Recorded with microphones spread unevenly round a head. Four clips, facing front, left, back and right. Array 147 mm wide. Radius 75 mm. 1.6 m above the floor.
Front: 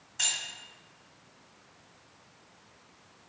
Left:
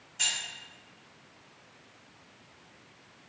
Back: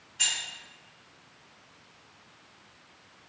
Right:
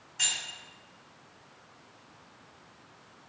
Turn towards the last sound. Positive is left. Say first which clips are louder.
# even, back 2 dB
turn(degrees=-5)